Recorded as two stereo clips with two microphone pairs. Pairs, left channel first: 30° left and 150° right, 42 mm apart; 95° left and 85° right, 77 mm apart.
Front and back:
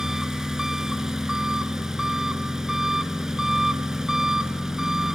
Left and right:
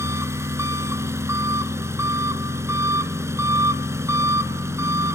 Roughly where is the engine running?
Right.